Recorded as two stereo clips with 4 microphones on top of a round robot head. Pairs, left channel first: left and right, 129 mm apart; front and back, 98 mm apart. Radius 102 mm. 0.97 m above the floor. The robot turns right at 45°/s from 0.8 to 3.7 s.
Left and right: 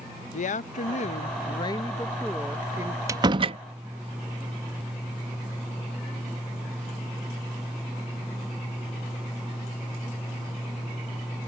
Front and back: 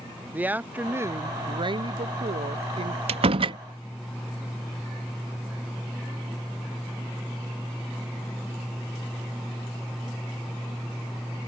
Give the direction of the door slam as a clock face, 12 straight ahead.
5 o'clock.